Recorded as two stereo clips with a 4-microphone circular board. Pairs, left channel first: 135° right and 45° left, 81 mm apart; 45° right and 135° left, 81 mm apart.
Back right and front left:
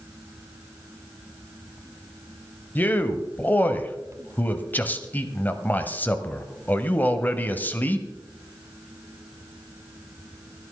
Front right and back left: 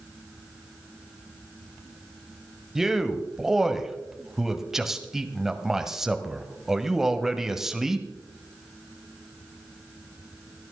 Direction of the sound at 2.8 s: 145° right.